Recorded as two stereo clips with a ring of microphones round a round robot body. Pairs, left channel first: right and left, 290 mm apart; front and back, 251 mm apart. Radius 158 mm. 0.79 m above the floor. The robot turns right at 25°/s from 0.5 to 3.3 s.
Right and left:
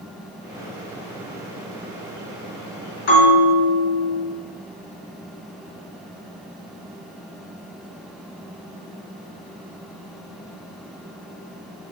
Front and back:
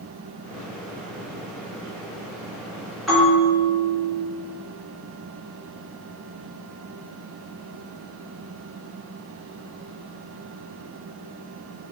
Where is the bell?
90° right, 4 m; by 4.2 s 85° right, 4 m.